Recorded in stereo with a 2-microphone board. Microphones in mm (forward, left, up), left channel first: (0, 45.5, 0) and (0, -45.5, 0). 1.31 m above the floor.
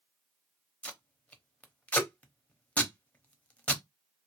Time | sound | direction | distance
0.8 | tape being pulled | 15° left (ahead or behind) | 0.9 m